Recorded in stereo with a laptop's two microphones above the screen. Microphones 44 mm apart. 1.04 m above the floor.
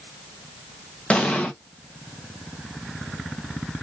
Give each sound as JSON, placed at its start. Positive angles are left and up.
{"t": 1.1, "sound": "an explosion", "side_deg": 25, "distance_m": 0.7}